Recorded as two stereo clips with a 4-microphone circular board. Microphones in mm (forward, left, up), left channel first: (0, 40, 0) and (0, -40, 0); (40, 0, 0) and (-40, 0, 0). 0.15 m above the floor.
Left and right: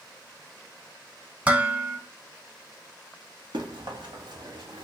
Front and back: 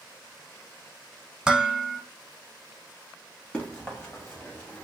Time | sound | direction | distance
1.5 | dishes clattering | 120° right | 0.7 m
3.5 | running footsteps | 80° right | 2 m